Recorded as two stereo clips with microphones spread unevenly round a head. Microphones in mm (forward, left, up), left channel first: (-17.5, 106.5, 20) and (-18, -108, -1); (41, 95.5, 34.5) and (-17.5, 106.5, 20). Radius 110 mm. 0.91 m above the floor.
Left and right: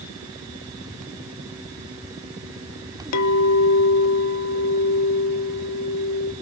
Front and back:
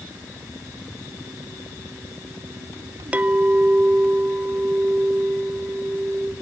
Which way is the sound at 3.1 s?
100° left.